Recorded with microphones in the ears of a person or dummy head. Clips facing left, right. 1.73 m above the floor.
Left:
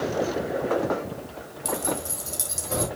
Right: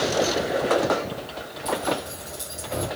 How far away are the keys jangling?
About 2.5 m.